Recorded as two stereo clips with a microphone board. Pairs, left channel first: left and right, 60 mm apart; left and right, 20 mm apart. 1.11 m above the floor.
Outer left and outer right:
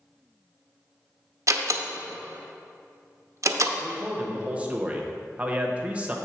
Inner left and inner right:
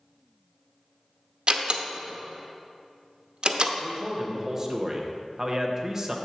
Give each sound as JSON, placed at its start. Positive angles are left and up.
{"t": 1.5, "sound": "a door slam", "side_deg": -55, "distance_m": 0.7}
{"t": 3.8, "sound": "a man speaking", "side_deg": -20, "distance_m": 0.9}